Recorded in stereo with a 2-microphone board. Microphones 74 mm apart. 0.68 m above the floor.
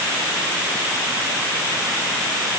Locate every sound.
Only background noise.